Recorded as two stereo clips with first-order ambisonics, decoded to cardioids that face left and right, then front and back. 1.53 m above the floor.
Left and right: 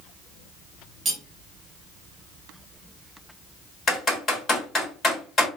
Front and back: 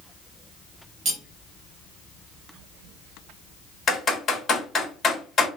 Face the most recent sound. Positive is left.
turn(degrees=45)